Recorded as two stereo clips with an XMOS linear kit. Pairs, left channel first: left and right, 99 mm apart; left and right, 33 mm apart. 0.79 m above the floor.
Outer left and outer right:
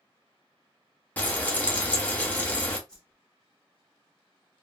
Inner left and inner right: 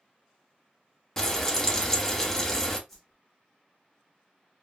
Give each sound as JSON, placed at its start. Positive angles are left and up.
{"t": 1.2, "sound": "frying", "side_deg": 15, "distance_m": 0.7}
{"t": 2.9, "sound": "a whoosh", "side_deg": 10, "distance_m": 1.1}